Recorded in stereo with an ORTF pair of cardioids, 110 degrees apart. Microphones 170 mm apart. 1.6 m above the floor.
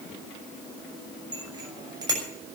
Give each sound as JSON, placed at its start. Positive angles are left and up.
{"t": 1.3, "sound": "a bicycle bell", "azimuth_deg": -25, "distance_m": 6.5}